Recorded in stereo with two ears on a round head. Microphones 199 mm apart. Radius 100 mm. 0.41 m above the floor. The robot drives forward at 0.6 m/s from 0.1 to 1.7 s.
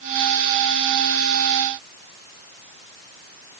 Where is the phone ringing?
No phone ringing in this recording.